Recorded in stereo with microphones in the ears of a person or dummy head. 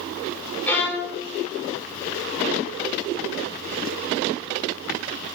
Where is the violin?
10° left (ahead or behind), 0.6 m.